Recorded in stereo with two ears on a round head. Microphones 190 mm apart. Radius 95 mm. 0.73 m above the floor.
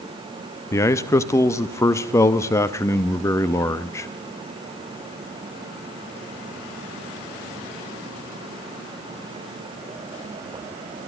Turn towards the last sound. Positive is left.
turn(degrees=15)  # may be behind; listen again after turning